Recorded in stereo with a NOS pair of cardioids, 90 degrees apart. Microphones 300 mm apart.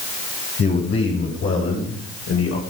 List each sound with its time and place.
0.6 s a man speaking: 40° left, 6.5 m; by 2.6 s 50° left, 5 m